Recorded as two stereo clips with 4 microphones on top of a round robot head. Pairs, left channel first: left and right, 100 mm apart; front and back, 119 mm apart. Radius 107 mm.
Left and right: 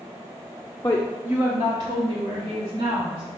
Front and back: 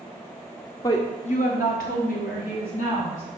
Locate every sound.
0.8 s a woman speaking: 35° left, 0.6 m; by 3.2 s 35° right, 1.8 m